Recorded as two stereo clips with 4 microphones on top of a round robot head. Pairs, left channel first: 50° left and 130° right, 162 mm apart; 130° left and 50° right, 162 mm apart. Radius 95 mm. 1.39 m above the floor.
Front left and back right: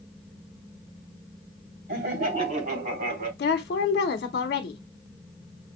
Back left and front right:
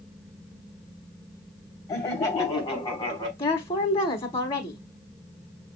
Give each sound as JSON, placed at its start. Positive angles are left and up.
{"t": 1.9, "sound": "laughter", "azimuth_deg": -160, "distance_m": 3.0}
{"t": 3.4, "sound": "a woman speaking", "azimuth_deg": 75, "distance_m": 1.1}